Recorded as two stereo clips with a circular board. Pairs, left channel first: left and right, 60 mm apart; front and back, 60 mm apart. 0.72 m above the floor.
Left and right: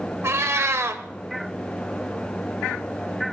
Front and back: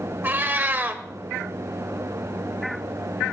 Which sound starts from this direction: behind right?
A cat meowing, at 0.2 s.